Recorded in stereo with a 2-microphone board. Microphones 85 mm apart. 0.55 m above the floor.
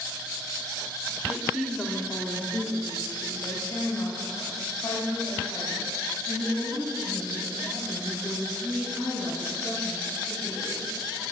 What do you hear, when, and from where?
1.3 s a woman speaking: 10° right (ahead or behind), 1.1 m; by 10.9 s 80° left, 7.5 m